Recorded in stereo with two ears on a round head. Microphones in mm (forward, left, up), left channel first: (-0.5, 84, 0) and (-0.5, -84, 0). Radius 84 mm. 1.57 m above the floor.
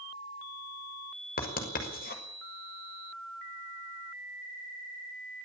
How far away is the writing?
About 5.5 m.